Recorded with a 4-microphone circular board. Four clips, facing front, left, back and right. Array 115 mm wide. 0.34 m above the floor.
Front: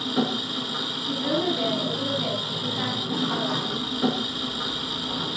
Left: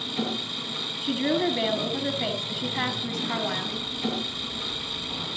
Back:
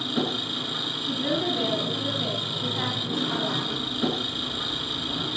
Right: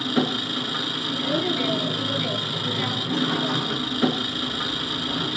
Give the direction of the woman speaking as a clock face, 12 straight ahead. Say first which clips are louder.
Left 2 dB, front 2 dB; 9 o'clock.